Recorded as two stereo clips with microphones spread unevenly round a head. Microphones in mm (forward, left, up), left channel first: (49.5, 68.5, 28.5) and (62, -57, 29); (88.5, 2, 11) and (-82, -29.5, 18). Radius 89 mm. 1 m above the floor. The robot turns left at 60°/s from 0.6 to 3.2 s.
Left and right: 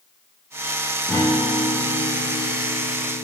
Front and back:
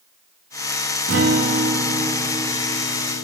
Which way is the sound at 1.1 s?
175° left.